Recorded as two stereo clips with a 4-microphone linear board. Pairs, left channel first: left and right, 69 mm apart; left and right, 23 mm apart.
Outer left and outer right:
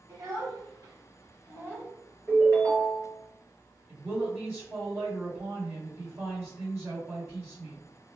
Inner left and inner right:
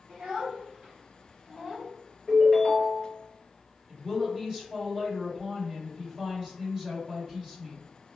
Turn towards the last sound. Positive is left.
turn(degrees=-35)  # may be behind; listen again after turning